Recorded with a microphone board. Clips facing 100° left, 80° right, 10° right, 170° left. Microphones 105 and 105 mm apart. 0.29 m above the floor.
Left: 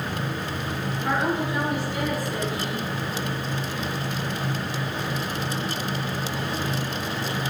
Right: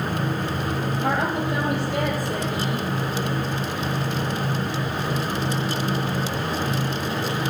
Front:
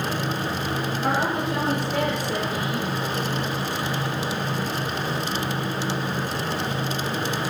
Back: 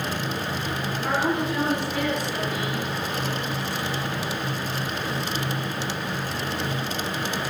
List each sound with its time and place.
1.0 s a woman speaking: 50° right, 7 m; by 2.9 s 45° right, 9 m